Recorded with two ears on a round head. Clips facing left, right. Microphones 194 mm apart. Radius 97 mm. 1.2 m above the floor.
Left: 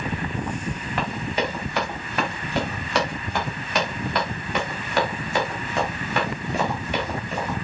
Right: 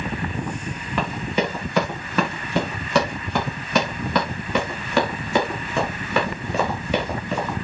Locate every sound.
1.0 s running footsteps: 80° right, 8 m; by 7.5 s 65° right (ahead or behind), 6.5 m